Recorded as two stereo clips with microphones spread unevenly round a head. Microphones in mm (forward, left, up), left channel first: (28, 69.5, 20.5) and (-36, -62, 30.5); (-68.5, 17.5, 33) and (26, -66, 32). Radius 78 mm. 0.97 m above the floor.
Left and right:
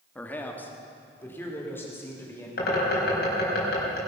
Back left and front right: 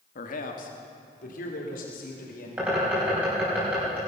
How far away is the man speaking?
About 1.6 m.